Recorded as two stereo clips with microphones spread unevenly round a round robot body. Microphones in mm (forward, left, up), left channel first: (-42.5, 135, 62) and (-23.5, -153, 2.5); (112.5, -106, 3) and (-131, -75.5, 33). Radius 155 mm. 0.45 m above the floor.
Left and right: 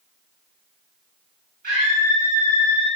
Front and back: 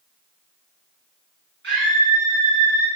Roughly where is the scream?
Behind right.